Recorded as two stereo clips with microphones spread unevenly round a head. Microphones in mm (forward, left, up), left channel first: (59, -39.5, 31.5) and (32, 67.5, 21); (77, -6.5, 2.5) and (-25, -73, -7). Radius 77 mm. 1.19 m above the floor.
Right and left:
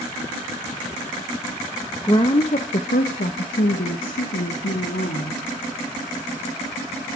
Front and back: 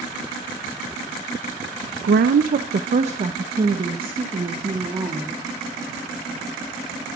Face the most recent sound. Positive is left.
turn(degrees=-90)